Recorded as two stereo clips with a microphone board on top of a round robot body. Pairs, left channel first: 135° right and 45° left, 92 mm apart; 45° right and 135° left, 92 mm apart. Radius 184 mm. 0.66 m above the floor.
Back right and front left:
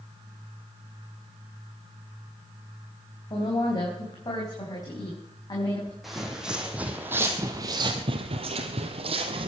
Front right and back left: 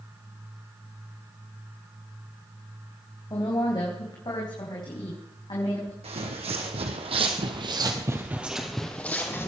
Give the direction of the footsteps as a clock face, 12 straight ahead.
8 o'clock.